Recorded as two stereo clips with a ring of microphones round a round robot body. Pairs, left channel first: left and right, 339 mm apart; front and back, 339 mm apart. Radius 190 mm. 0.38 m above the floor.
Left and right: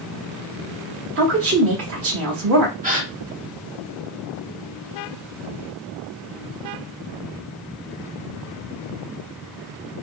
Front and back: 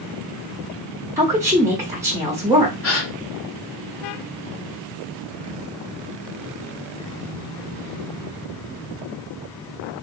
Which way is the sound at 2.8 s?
30° right.